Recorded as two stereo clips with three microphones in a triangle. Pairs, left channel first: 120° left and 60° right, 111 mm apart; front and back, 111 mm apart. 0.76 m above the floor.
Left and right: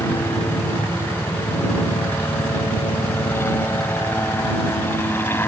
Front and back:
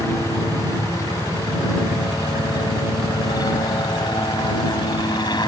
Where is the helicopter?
60° left; by 5.5 s 50° left.